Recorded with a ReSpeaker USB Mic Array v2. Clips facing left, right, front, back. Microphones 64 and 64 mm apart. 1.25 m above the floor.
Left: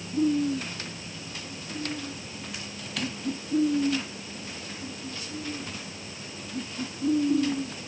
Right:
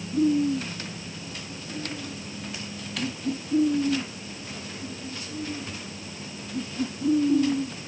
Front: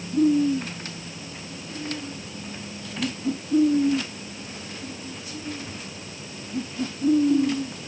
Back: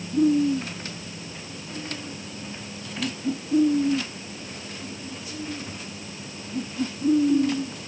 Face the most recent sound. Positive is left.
No sound to turn to.